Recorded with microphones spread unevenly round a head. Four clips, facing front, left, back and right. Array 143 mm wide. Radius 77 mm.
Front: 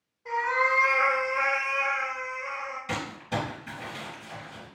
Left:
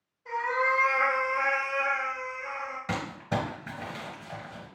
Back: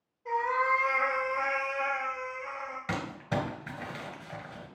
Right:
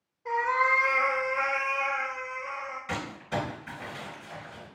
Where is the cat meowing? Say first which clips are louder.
Right 2 dB, front 1 dB; 105° right, 0.8 m; by 2.8 s 145° left, 1.1 m.